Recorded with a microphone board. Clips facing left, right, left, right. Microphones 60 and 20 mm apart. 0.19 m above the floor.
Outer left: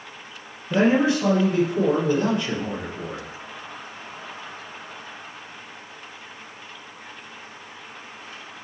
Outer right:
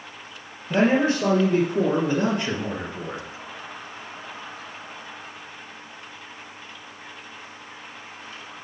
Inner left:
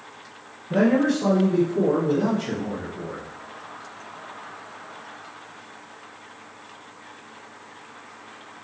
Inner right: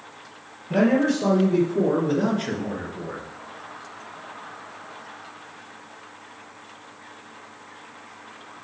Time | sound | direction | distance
0.7 | a man speaking | 55° right (ahead or behind) | 3 m